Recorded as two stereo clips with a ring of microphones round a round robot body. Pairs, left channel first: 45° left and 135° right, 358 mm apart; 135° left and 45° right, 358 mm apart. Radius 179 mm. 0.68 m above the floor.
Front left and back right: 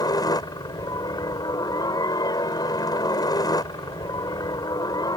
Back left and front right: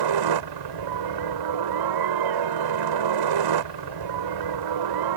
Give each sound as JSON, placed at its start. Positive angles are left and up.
{"t": 0.0, "sound": "a helicopter", "azimuth_deg": -35}